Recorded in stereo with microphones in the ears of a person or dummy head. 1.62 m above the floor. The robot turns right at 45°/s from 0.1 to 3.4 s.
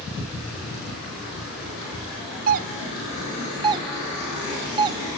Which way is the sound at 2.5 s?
45° right (ahead or behind).